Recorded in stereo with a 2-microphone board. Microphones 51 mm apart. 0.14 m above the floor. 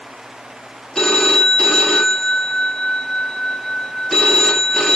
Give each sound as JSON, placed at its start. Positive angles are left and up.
{"t": 0.9, "sound": "a phone ringing", "side_deg": 10, "distance_m": 0.7}